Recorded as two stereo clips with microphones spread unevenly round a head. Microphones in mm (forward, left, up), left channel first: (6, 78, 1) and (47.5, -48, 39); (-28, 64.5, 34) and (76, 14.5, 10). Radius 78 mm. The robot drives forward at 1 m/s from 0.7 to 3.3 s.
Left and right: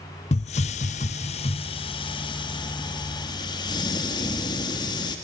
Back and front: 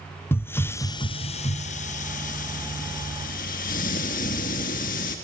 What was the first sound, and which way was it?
A hiss, 140° left.